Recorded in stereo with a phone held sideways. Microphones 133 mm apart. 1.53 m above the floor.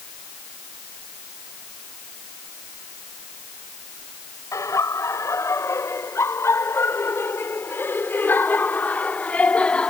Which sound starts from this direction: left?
Laughter, at 4.5 s.